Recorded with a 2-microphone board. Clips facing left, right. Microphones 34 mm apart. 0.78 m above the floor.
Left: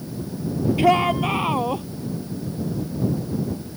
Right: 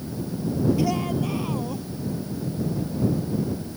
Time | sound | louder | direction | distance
0.8 | a shout | left 7 dB | 50° left (ahead or behind) | ?